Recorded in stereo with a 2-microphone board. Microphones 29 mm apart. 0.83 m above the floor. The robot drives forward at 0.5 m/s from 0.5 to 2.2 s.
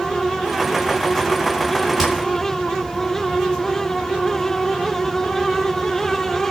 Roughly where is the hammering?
Centre.